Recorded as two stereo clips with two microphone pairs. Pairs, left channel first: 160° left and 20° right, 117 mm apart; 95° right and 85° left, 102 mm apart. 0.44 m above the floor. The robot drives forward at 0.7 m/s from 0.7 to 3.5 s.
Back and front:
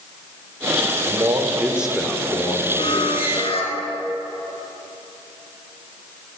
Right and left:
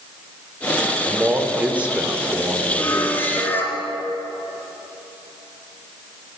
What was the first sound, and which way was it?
A man speaking, 15° left.